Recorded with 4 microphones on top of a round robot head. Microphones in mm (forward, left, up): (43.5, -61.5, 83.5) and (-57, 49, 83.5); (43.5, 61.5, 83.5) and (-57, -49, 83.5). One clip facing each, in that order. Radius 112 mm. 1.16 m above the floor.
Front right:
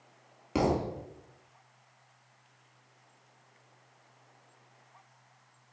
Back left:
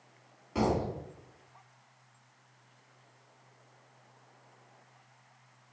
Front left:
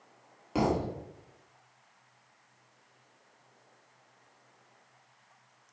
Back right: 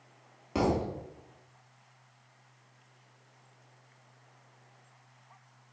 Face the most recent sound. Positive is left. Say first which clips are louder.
# front right 1 dB, even
turn(degrees=-40)